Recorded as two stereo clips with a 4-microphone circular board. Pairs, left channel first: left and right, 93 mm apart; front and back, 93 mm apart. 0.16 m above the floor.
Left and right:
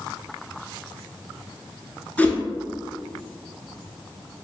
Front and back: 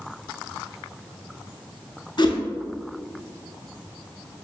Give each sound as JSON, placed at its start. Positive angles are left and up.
{"t": 2.2, "sound": "a whoosh", "azimuth_deg": 20, "distance_m": 0.6}